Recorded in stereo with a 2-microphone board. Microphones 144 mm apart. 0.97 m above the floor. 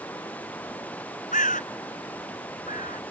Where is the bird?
70° left (ahead or behind).